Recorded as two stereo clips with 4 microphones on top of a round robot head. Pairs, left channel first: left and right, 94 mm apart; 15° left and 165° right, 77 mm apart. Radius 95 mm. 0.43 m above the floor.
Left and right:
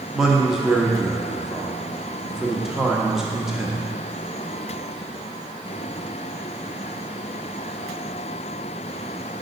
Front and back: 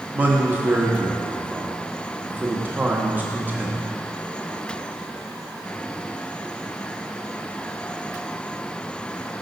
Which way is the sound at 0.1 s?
170° right.